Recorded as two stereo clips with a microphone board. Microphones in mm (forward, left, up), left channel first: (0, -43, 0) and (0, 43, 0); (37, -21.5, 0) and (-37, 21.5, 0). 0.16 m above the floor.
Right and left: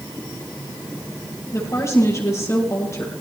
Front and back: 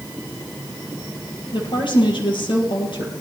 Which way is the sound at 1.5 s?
35° right.